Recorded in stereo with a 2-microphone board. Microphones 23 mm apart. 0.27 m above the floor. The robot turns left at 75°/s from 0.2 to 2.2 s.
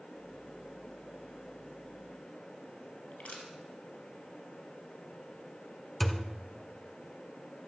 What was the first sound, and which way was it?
Crushing, 75° left (ahead or behind).